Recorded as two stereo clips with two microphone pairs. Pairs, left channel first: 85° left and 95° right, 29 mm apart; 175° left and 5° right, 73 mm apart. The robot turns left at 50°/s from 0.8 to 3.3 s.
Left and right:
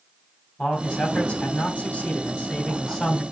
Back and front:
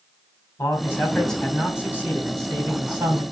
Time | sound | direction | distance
0.6 | a man speaking | 120° left | 3 m